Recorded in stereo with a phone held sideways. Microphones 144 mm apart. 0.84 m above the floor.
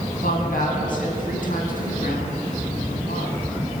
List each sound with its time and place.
0.2 s a woman speaking: 75° left (ahead or behind), 7 m